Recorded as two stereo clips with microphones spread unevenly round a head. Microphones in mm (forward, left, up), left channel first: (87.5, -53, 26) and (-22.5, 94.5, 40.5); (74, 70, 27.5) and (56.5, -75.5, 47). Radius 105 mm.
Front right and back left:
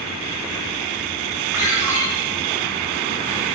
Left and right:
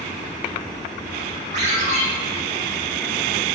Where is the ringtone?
155° right, 4.5 m.